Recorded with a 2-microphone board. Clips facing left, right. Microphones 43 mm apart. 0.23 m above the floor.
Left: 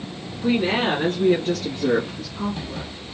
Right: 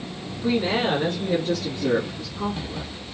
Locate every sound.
0.4 s a woman speaking: 30° left (ahead or behind), 3 m; by 2.9 s 55° left (ahead or behind), 3.5 m